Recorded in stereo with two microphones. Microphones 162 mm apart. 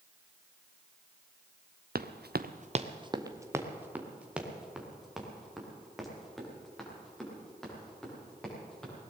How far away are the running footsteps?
About 0.9 m.